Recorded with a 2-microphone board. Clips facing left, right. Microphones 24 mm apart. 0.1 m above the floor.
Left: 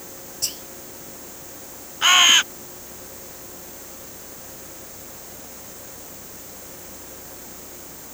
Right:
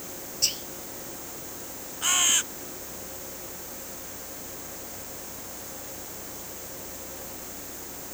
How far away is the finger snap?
I don't hear a finger snap.